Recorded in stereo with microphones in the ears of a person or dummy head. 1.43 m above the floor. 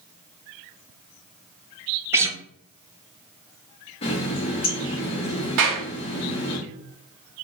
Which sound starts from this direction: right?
A clap, at 5.6 s.